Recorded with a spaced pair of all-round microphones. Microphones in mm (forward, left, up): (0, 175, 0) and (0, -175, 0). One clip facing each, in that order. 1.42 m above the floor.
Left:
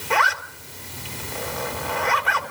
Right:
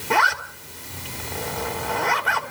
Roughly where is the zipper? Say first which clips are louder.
Right 1 dB; right.